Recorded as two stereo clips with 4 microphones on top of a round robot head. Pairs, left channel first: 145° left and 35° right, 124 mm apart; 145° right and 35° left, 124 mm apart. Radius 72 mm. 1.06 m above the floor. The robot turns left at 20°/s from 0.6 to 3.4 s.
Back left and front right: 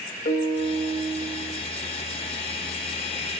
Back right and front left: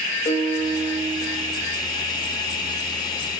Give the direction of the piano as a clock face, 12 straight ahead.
6 o'clock.